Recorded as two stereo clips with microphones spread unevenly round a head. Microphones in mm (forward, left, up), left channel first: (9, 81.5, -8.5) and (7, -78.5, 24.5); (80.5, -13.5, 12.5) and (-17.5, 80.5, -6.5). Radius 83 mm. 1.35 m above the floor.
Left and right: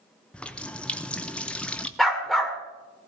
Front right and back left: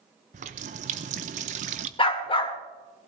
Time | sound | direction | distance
0.3 | a running tap | straight behind | 0.5 m
2.0 | a dog barking | 10° right | 1.5 m